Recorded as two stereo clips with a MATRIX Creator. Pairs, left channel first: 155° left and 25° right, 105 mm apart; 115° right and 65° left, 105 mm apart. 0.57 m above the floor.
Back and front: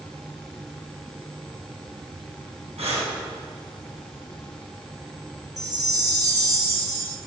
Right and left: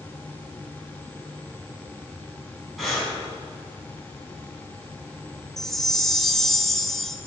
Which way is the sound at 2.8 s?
25° right.